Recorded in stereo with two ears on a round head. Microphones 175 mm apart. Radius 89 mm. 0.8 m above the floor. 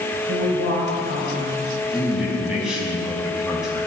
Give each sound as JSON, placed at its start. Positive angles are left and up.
{"t": 0.3, "sound": "a woman speaking", "side_deg": -60, "distance_m": 4.0}
{"t": 1.9, "sound": "a man speaking", "side_deg": -5, "distance_m": 5.0}